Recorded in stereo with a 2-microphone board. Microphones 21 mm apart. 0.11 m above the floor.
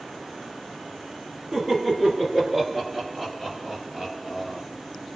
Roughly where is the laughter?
Right.